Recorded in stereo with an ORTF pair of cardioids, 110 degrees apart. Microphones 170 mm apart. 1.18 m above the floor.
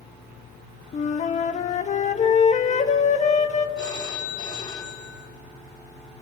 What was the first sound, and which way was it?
A flute, 40° left.